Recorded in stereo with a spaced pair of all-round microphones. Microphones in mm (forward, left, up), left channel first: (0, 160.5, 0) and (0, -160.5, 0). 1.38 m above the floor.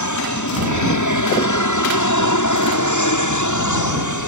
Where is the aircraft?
70° left (ahead or behind).